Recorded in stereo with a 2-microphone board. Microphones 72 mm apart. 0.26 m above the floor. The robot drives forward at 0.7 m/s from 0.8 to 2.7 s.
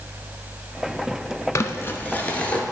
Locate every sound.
1.6 s crumpling: 45° left (ahead or behind), 0.6 m; by 2.6 s 20° left (ahead or behind), 1.2 m